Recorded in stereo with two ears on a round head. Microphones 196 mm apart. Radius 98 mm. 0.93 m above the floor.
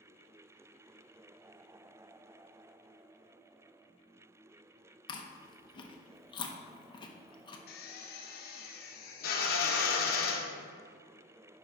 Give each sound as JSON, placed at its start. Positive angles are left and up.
{"t": 5.1, "sound": "chewing", "side_deg": 20, "distance_m": 0.8}
{"t": 7.7, "sound": "a drill", "side_deg": 45, "distance_m": 1.0}